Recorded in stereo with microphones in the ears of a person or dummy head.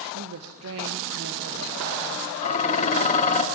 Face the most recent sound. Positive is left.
turn(degrees=40)  # may be behind; listen again after turning